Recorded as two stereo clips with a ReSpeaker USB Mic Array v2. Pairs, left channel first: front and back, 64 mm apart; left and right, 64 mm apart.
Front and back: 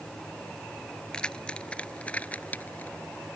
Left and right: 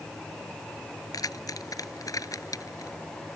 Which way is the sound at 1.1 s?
75° left.